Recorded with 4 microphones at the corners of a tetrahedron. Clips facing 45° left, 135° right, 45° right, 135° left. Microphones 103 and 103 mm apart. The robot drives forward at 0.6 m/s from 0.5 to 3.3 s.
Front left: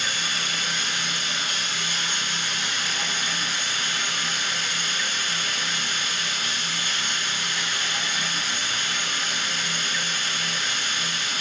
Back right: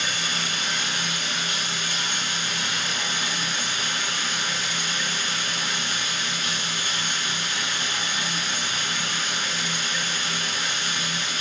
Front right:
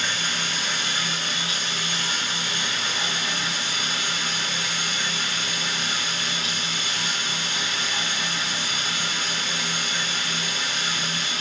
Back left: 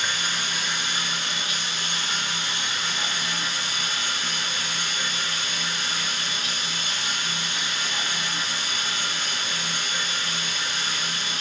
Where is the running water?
150° right, 1.3 m; by 11.4 s 165° right, 3 m.